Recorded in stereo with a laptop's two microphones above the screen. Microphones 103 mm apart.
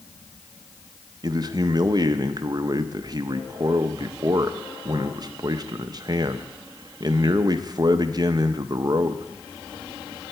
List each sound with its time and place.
1.2 s a man speaking: 40° right (ahead or behind), 0.6 m